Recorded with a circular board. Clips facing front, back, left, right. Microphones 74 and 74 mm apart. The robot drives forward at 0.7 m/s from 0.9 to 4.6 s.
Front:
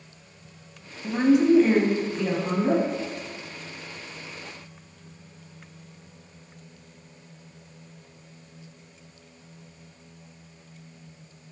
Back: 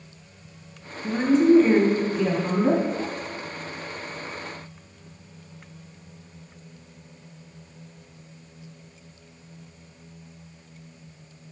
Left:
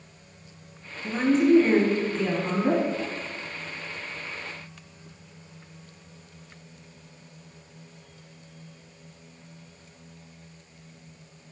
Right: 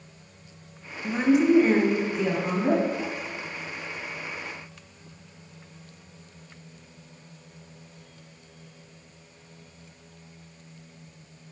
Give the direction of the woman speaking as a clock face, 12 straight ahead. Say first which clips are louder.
Back 1 dB, even; 1 o'clock.